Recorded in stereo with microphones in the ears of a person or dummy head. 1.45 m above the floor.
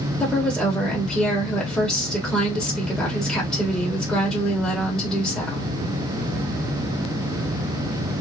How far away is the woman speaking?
About 0.9 m.